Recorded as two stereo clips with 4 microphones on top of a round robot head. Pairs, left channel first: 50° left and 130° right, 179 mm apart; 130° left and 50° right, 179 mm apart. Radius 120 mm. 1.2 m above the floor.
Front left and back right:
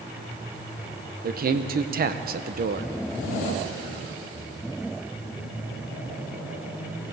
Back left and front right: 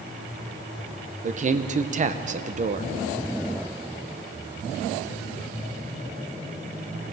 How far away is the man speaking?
About 0.9 m.